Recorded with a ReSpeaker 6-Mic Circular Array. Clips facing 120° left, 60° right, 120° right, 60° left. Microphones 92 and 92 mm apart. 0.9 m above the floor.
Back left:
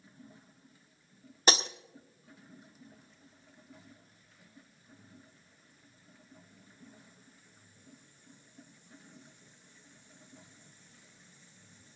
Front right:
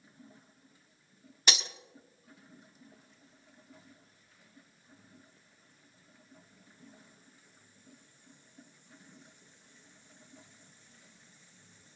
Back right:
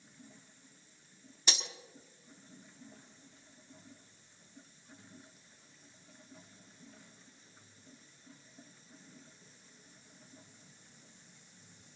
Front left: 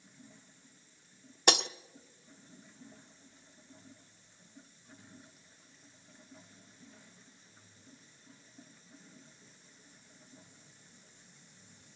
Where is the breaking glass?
75° left, 0.6 m.